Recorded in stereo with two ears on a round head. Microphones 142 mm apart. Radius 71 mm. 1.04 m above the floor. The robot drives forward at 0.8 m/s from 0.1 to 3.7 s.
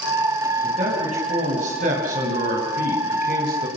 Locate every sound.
0.6 s a man speaking: 45° right (ahead or behind), 6.5 m; by 3.7 s 65° right (ahead or behind), 5 m